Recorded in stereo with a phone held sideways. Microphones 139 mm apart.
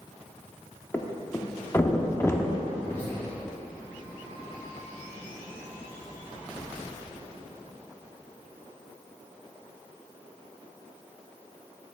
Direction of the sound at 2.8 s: 20° left (ahead or behind).